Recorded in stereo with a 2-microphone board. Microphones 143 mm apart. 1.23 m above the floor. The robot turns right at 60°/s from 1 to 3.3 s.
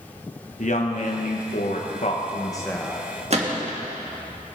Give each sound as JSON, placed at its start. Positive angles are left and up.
{"t": 0.6, "sound": "a woman speaking", "azimuth_deg": 60, "distance_m": 1.5}
{"t": 3.3, "sound": "a gunshot", "side_deg": -50, "distance_m": 1.6}